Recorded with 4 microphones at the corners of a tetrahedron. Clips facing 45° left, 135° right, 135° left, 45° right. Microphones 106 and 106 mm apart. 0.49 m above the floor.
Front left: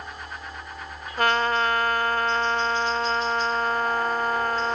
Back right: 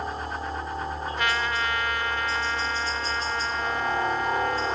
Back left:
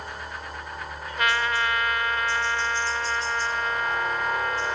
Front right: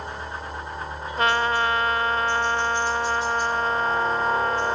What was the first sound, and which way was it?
A helicopter, 110° right.